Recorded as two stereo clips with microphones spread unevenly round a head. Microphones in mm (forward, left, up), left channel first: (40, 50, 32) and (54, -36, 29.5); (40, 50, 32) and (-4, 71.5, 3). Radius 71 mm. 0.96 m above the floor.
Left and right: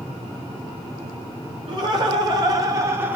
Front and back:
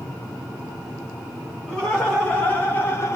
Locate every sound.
1.7 s laughter: 120° right, 1.8 m; by 3.2 s 75° right, 0.8 m